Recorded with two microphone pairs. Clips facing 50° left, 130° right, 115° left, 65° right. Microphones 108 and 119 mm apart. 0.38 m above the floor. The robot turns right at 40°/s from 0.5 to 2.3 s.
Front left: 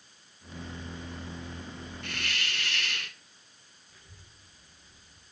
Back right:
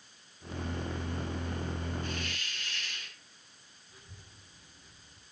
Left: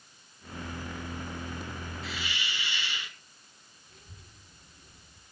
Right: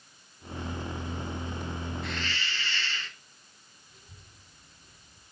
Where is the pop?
No pop in this recording.